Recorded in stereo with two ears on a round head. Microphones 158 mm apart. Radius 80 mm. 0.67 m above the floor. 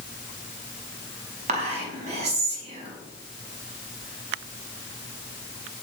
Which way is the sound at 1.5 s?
35° right (ahead or behind).